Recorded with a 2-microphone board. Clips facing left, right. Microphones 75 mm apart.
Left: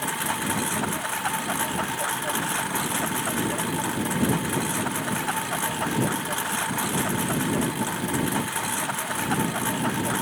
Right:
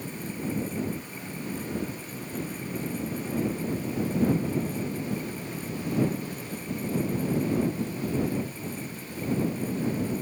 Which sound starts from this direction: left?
A lawn mower, at 0.0 s.